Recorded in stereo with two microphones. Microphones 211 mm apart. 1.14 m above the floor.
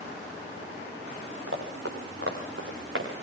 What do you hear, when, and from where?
1.5 s running footsteps: 75° right (ahead or behind), 6 m; by 3.1 s 70° right (ahead or behind), 6 m